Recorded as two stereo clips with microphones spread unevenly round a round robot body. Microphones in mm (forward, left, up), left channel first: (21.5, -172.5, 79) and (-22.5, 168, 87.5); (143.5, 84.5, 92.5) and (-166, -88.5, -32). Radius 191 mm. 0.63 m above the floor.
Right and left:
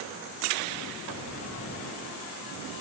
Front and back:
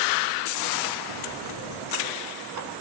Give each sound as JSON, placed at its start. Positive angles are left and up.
{"t": 1.1, "sound": "a sliding door", "azimuth_deg": -135, "distance_m": 5.0}